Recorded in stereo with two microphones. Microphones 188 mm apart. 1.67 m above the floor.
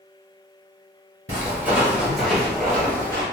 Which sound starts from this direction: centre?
Footsteps, at 1.3 s.